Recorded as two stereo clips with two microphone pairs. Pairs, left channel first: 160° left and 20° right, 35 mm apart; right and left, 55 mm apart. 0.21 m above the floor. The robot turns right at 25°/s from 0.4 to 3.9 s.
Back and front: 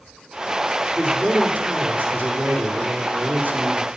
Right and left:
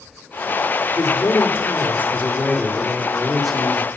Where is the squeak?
I don't hear a squeak.